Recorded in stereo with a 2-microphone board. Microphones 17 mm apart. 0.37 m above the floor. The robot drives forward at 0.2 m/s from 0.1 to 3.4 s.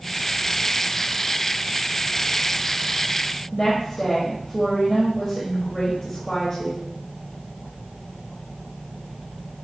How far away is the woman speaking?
About 1.2 m.